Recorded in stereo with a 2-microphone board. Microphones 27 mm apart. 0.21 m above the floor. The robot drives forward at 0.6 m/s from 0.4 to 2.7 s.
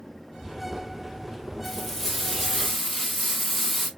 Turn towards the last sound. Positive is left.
turn(degrees=0)  # may be behind; listen again after turning